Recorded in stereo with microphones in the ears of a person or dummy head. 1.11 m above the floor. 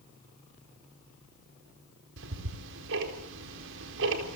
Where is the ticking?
70° right (ahead or behind), 4 m.